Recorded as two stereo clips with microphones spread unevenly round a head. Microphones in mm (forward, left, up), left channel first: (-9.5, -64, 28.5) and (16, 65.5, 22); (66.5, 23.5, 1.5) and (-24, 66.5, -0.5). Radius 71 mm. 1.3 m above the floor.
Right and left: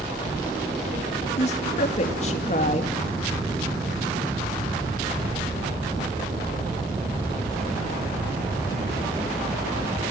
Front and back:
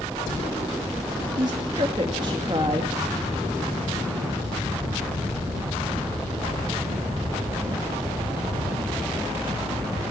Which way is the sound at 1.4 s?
145° right.